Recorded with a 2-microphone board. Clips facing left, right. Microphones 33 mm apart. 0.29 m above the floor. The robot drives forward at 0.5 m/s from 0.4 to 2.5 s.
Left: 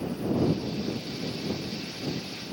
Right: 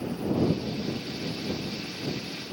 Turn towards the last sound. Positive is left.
No sound to turn to.